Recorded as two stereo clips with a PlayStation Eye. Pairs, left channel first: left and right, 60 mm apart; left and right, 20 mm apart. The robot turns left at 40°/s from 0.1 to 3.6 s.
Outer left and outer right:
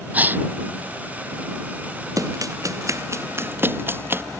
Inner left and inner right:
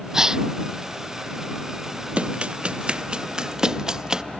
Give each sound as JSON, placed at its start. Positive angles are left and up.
{"t": 0.1, "sound": "a gasp", "side_deg": -25}
{"t": 2.2, "sound": "running footsteps", "side_deg": -90}